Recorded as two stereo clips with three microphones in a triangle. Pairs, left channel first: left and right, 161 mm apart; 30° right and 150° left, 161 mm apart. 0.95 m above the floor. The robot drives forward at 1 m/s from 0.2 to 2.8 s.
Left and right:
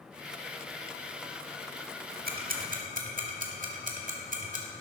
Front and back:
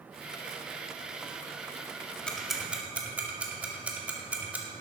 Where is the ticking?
115° right, 1.9 m; by 4.7 s 130° right, 2 m.